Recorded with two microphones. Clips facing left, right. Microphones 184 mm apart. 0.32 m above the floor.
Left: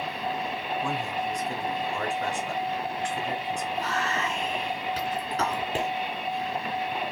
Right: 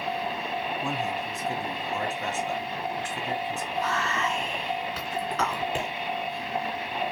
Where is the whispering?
40° left (ahead or behind), 3 m.